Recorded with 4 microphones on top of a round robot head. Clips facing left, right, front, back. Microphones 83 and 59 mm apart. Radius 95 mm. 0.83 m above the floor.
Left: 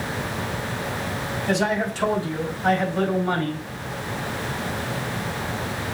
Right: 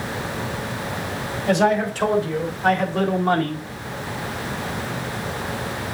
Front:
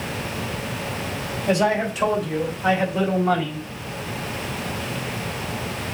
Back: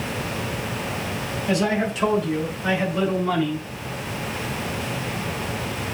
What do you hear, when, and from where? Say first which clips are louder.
1.5 s a man speaking: right 5 dB, front 2 dB; 55° right, 4.5 m; by 3.6 s 65° right, 3.5 m